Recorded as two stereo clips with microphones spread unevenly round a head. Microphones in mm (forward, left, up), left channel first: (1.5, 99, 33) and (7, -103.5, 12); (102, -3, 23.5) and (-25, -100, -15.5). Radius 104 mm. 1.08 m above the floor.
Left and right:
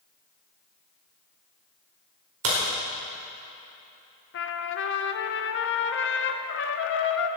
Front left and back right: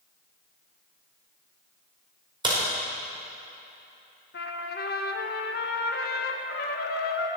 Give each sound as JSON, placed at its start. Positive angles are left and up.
{"t": 2.4, "sound": "a crack", "azimuth_deg": -85, "distance_m": 5.0}
{"t": 4.3, "sound": "a trumpet", "azimuth_deg": 75, "distance_m": 0.8}